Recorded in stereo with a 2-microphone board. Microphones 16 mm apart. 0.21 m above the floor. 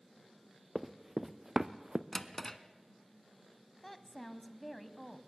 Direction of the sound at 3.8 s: 10° left (ahead or behind).